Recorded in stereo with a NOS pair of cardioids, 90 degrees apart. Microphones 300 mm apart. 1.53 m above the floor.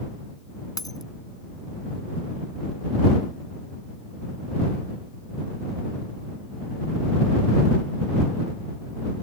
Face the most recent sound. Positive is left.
turn(degrees=10)